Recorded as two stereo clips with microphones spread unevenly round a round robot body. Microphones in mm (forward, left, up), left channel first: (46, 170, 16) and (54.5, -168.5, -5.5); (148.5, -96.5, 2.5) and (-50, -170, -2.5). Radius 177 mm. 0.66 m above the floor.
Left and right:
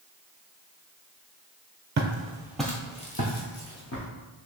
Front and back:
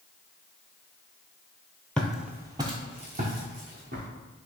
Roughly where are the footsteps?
Ahead right.